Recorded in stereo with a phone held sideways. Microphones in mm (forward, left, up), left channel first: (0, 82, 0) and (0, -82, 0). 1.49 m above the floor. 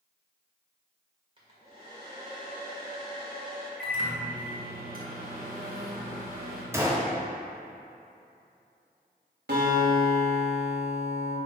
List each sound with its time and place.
1.4 s a hair dryer: 30° right (ahead or behind), 1.8 m
3.8 s a microwave: 65° right (ahead or behind), 1.5 m
6.7 s a gunshot: 15° right (ahead or behind), 0.9 m
9.5 s a guitar: 80° right, 1.7 m